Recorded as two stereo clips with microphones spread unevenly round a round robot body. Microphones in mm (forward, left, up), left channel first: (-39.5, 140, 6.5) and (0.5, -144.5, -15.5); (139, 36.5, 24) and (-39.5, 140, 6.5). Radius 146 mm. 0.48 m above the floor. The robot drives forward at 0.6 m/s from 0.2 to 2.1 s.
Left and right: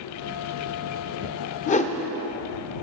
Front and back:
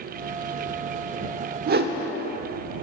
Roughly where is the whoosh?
Behind.